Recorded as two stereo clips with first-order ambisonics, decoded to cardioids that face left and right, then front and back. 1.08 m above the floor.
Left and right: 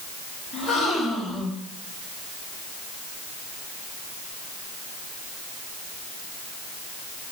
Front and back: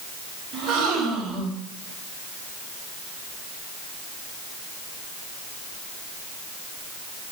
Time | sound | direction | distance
0.5 | a gasp | 140° left | 4 m